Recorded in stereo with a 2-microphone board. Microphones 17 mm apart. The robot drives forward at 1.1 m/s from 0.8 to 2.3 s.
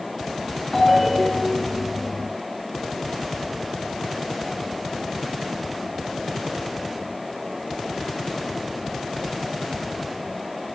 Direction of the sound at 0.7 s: 25° left (ahead or behind).